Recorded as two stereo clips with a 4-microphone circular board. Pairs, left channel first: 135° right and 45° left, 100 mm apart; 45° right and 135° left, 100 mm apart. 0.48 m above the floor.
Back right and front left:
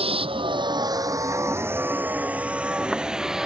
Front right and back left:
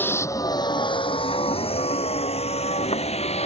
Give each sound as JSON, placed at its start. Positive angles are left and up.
{"t": 0.0, "sound": "a vehicle", "azimuth_deg": 25}